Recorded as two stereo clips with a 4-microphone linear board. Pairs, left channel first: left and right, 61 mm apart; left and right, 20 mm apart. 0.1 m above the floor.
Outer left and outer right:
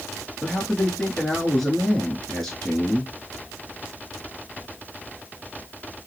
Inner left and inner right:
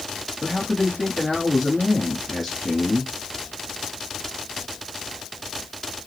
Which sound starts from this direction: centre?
A man speaking, at 0.4 s.